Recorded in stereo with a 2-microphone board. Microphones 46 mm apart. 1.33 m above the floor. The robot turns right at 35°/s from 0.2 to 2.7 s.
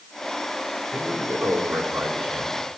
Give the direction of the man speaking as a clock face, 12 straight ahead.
5 o'clock.